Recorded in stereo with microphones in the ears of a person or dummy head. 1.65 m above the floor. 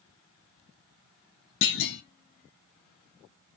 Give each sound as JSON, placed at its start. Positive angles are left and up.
{"t": 1.6, "sound": "a clunk", "side_deg": 70, "distance_m": 0.9}